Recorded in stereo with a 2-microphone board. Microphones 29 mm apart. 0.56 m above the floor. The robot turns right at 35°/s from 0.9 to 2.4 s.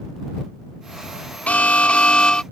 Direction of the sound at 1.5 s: 110° left.